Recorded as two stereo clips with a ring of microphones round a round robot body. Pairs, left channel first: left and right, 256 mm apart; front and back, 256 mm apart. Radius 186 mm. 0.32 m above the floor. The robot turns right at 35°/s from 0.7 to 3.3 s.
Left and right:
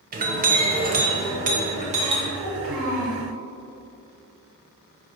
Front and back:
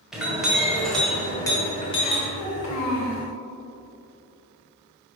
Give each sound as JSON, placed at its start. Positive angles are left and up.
{"t": 0.1, "sound": "a clink", "azimuth_deg": -95, "distance_m": 1.0}
{"t": 2.3, "sound": "a child speaking", "azimuth_deg": -10, "distance_m": 2.0}